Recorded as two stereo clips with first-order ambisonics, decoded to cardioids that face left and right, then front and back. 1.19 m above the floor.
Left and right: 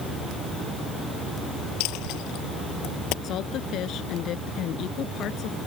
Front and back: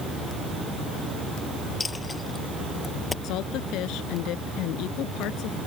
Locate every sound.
1.8 s a dropped coin: 75° left
3.2 s a woman speaking: 40° left